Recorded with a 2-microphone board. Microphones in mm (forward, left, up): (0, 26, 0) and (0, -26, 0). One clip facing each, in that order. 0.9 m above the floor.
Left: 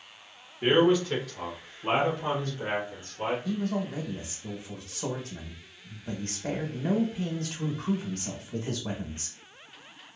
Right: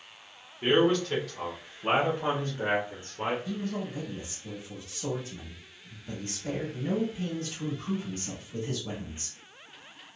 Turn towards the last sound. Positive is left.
turn(degrees=65)  # may be behind; listen again after turning